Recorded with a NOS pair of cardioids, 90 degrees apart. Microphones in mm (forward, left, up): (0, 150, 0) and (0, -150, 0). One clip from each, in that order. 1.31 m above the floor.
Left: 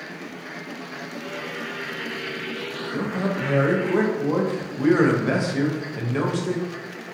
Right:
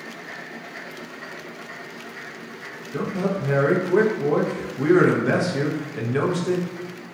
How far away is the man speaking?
About 0.6 m.